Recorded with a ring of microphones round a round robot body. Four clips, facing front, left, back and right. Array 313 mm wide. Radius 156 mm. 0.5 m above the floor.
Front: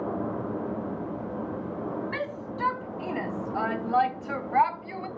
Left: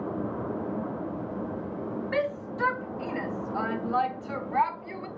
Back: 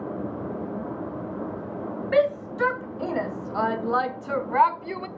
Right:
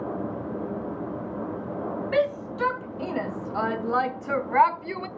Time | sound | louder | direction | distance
2.1 | a shout | right 6 dB, back 11 dB | 170° right | 2.5 m